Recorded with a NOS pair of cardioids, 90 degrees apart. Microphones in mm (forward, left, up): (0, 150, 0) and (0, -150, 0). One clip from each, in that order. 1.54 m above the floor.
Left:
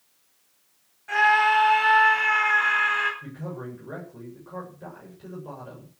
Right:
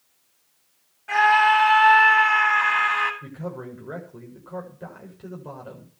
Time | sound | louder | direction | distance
1.1 | a scream | right 2 dB | 25° right | 9 m
3.2 | a man speaking | right 2 dB | 35° right | 7.5 m